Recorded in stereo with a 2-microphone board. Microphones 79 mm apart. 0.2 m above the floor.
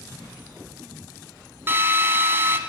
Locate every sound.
1.7 s a drill: 30° right (ahead or behind), 0.8 m